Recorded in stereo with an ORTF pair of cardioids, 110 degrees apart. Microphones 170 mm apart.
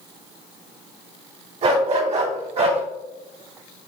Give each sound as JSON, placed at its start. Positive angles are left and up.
{"t": 1.6, "sound": "a dog barking", "azimuth_deg": -45, "distance_m": 3.5}